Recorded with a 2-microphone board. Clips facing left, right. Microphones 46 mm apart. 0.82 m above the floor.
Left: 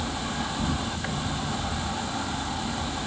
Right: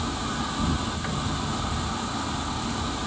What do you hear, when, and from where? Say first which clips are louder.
0.0 s an insect: right 1 dB; 15° left (ahead or behind), 5.5 m